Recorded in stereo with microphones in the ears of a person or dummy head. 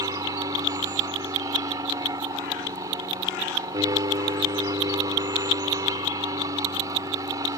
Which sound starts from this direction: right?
An aircraft, at 0.0 s.